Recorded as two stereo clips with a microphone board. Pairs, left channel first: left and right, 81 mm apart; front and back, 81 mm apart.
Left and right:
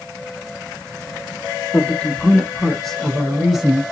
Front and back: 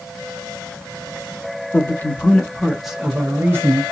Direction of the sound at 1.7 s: 30° left.